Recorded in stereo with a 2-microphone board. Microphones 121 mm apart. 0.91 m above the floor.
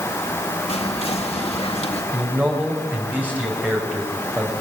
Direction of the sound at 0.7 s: 60° left (ahead or behind).